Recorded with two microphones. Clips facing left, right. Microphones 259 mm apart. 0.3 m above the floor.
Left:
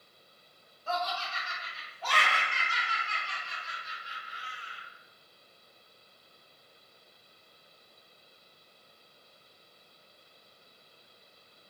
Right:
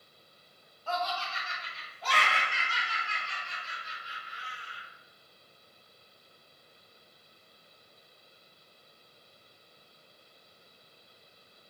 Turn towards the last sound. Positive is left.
turn(degrees=-50)  # may be behind; listen again after turning